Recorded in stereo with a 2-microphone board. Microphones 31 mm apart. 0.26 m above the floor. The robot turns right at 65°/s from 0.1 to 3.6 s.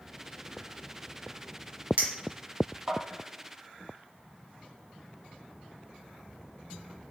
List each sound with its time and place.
2.0 s a clink: 50° right (ahead or behind), 1.1 m; by 3.0 s 40° right (ahead or behind), 1.1 m